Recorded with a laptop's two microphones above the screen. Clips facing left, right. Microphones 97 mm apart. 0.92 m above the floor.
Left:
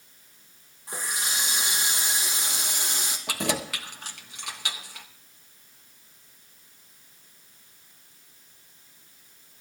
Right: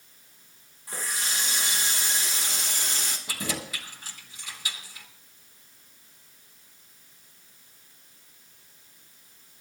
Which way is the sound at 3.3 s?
65° left (ahead or behind).